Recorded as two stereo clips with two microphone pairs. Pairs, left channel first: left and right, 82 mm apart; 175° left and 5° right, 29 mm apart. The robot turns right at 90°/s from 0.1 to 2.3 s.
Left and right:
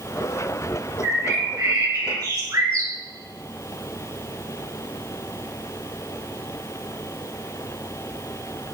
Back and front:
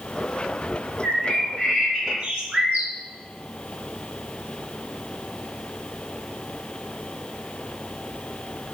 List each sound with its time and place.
1.0 s a bird: 160° right, 4 m; by 2.9 s 45° right, 4 m